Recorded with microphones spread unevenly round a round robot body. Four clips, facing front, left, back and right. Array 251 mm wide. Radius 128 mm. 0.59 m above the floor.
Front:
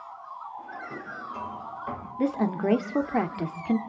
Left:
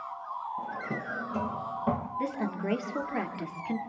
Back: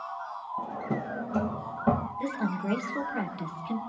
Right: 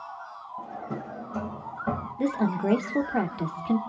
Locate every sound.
0.6 s a drawer: 170° left, 1.0 m
2.2 s a woman speaking: 30° right, 1.8 m